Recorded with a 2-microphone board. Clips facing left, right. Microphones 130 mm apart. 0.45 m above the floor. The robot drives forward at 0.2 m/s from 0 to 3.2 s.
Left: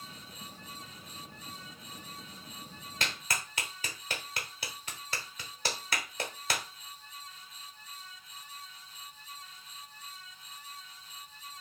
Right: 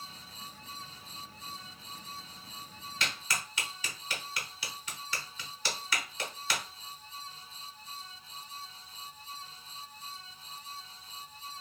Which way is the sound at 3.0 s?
50° left (ahead or behind).